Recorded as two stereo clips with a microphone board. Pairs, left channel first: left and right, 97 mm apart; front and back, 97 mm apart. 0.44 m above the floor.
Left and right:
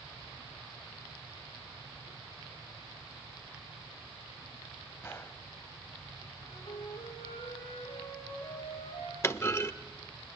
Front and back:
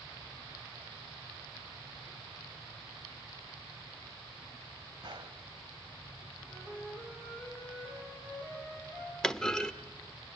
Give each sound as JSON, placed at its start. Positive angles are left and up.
{"t": 5.0, "sound": "a gunshot", "azimuth_deg": 150, "distance_m": 1.2}
{"t": 6.4, "sound": "a flute", "azimuth_deg": 100, "distance_m": 8.0}
{"t": 9.2, "sound": "a clunk", "azimuth_deg": 75, "distance_m": 0.9}